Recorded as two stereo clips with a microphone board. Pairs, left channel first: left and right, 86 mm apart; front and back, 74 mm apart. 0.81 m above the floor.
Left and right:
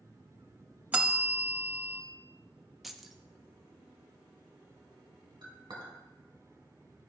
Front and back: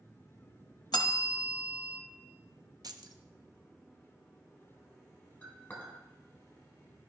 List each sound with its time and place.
0.9 s a bell: 20° right, 0.8 m
2.8 s keys jangling: 175° right, 0.5 m
5.4 s a clink: 70° right, 2.5 m